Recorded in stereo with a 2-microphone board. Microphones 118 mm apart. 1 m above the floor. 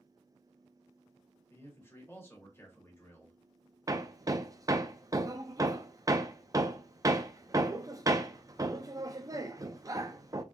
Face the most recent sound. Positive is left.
turn(degrees=-30)  # may be behind; listen again after turning